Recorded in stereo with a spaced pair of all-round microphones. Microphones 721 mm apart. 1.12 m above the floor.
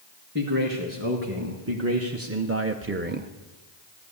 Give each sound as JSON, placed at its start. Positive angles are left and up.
{"t": 0.3, "sound": "a man speaking", "side_deg": -15, "distance_m": 2.0}